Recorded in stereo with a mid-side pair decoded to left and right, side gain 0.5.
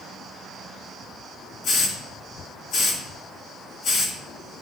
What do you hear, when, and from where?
1.6 s a hiss: 65° left, 3 m